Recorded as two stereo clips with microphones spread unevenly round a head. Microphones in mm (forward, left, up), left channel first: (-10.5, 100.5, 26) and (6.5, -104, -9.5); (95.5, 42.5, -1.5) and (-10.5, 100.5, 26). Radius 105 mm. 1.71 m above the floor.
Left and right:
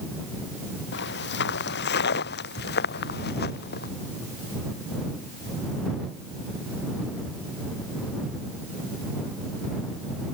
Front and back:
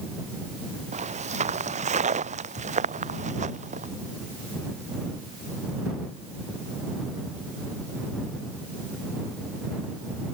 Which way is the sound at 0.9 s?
130° left.